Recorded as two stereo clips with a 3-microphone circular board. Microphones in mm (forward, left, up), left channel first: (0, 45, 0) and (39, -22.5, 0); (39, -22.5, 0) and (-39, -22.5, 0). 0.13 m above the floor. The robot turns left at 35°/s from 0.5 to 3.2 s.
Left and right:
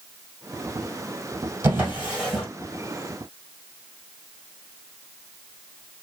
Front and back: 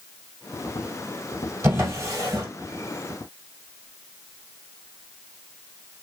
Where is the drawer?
120° right, 1.5 m; by 2.5 s 145° right, 1.5 m.